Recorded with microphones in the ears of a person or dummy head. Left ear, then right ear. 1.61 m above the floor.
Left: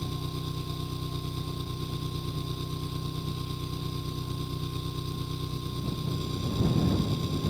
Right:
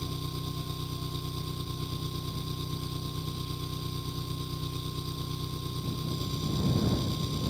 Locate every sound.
0.0 s an engine running: 15° right (ahead or behind)